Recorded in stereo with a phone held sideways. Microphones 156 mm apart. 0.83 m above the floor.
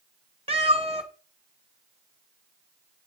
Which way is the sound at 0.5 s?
40° right (ahead or behind).